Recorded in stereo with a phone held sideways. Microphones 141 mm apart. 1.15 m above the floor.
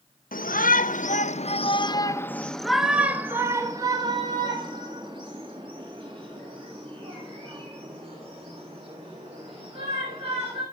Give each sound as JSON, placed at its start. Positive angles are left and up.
{"t": 0.3, "sound": "a shout", "side_deg": 80, "distance_m": 1.1}